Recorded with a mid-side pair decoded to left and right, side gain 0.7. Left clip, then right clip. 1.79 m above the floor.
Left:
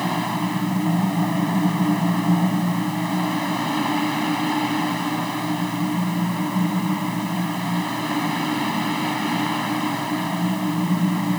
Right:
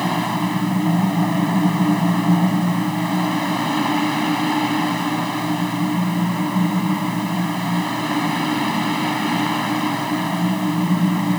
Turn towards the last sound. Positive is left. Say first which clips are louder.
# right 3 dB
turn(degrees=-10)